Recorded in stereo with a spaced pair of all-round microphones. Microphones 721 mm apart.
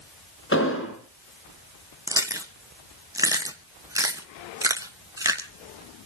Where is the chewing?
5° right (ahead or behind), 1.4 m.